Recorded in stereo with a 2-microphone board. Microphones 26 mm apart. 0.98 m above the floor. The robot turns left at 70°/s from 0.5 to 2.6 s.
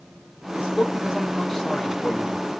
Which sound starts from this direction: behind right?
A man speaking, at 0.5 s.